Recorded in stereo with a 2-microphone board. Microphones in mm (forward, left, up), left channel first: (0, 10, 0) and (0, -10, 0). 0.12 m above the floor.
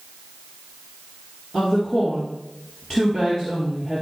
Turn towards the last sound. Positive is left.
turn(degrees=30)  # may be behind; listen again after turning